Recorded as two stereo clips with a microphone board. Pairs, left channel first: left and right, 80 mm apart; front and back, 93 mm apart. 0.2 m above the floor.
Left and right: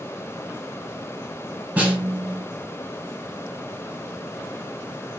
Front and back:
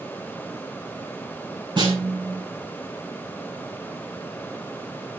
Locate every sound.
1.8 s a snare drum: 160° right, 1.4 m